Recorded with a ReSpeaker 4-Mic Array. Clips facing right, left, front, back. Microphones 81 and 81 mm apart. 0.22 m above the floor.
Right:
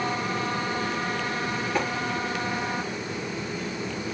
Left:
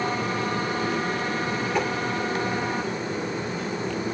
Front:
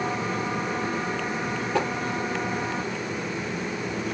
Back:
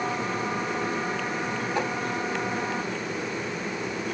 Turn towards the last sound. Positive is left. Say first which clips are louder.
# left 2 dB, front 3 dB
turn(degrees=0)